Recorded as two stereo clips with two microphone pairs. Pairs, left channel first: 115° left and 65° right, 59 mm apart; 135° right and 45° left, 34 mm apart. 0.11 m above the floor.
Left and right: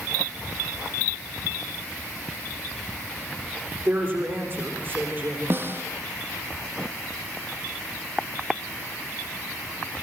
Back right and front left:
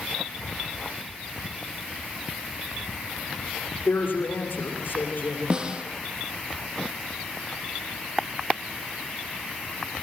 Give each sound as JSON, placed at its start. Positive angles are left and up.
{"t": 3.9, "sound": "a woman speaking", "azimuth_deg": -120, "distance_m": 8.5}
{"t": 5.5, "sound": "a snare drum", "azimuth_deg": -20, "distance_m": 3.0}